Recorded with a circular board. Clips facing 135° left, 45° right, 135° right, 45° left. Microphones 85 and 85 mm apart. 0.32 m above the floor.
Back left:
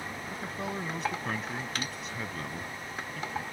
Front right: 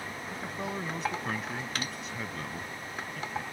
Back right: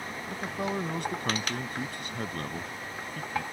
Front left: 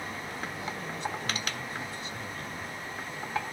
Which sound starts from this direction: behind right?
A man speaking, at 0.3 s.